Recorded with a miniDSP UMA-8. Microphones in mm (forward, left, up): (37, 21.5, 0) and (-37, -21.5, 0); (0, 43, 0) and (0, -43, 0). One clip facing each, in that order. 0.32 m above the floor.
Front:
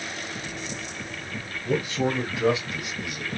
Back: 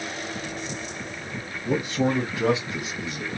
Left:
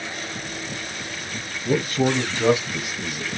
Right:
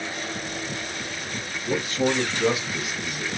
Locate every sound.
1.6 s a man speaking: 130° left, 2 m; by 3.3 s 165° left, 1.8 m